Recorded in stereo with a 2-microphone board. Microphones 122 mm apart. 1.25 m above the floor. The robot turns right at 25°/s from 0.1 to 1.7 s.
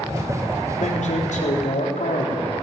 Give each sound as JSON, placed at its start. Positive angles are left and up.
{"t": 0.8, "sound": "a man speaking", "side_deg": 75, "distance_m": 3.5}